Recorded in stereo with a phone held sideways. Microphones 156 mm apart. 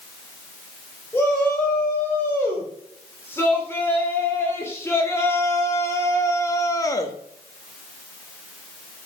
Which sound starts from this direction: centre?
A shout, at 1.1 s.